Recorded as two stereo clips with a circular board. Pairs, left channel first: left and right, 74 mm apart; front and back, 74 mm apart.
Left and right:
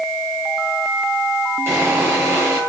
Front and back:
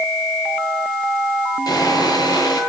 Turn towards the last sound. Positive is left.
turn(degrees=-35)